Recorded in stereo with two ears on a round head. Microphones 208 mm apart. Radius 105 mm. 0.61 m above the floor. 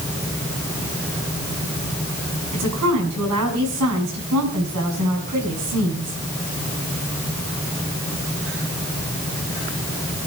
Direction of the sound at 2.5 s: 80° right.